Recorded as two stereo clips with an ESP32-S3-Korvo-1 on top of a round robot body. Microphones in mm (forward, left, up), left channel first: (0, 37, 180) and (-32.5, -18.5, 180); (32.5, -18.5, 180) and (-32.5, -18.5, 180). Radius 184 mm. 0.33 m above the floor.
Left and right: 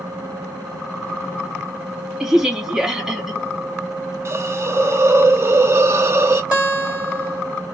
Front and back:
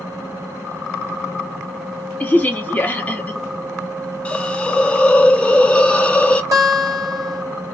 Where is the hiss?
75° right, 0.7 m.